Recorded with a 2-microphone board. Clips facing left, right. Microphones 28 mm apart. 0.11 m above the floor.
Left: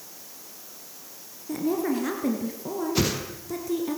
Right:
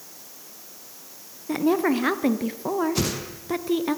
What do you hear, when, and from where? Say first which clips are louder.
1.5 s a woman speaking: right 5 dB; 45° right (ahead or behind), 1.5 m
3.0 s a whoosh: left 1 dB; 10° left (ahead or behind), 2.5 m